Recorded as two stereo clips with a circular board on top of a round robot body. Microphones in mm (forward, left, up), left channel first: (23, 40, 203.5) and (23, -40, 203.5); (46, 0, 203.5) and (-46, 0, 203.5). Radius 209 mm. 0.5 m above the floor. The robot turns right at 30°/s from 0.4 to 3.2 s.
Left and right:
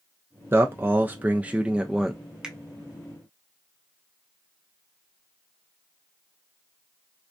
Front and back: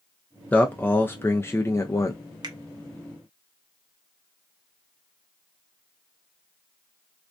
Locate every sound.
0.5 s a man speaking: 60° right, 0.7 m; by 2.2 s 10° right, 0.7 m
2.4 s a finger snap: 165° right, 0.9 m